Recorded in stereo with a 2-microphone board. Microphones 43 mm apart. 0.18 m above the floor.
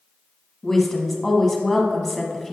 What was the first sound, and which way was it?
A woman speaking, 10° left (ahead or behind).